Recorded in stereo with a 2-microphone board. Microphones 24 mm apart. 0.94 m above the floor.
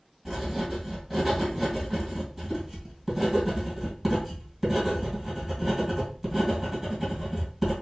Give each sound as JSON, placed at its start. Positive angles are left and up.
{"t": 0.2, "sound": "writing", "side_deg": -5, "distance_m": 2.5}